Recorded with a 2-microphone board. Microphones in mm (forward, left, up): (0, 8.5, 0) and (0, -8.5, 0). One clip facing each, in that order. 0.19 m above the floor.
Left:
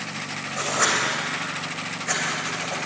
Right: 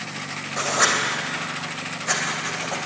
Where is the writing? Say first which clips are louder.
Right 2 dB; 30° right (ahead or behind), 2 m.